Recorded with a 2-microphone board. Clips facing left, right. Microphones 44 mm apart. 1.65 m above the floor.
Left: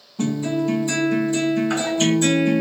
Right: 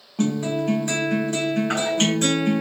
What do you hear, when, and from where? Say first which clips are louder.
0.2 s a guitar: left 1 dB; 60° right (ahead or behind), 1.4 m